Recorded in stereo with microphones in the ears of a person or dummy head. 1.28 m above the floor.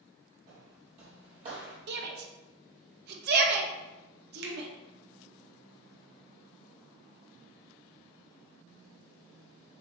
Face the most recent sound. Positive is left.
turn(degrees=-65)  # may be behind; listen again after turning